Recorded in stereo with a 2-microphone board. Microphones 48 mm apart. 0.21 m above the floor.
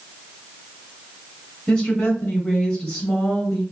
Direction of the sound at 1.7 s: 10° left (ahead or behind).